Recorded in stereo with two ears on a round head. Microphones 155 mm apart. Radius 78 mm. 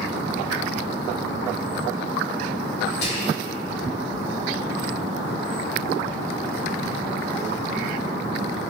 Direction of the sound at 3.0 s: 65° left (ahead or behind).